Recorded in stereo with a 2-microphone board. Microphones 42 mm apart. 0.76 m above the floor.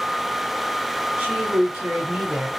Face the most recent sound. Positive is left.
turn(degrees=-60)  # may be behind; listen again after turning